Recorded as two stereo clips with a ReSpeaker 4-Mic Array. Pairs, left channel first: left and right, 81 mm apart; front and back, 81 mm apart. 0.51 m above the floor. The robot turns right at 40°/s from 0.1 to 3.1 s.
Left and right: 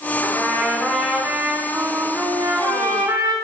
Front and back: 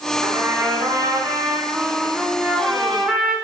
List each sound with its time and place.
0.2 s a trumpet: 155° left, 1.5 m; by 3.4 s 90° right, 1.5 m